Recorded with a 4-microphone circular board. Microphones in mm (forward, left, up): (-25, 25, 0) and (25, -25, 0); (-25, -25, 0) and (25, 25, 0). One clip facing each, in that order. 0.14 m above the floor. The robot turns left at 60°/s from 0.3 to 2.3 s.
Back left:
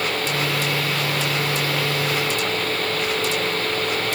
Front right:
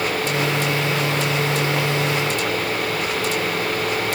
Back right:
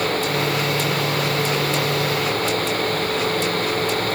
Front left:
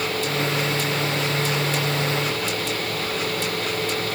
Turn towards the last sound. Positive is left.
No sound to turn to.